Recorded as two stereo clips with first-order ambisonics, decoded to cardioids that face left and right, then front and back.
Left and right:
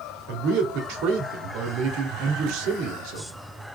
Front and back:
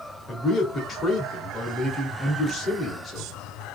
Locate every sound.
0.3 s a man speaking: 70° right, 1.4 m